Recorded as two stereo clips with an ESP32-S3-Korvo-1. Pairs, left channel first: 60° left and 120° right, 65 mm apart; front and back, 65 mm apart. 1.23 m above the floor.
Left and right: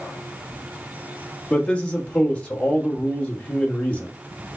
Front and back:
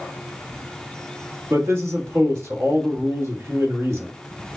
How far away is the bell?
I don't hear a bell.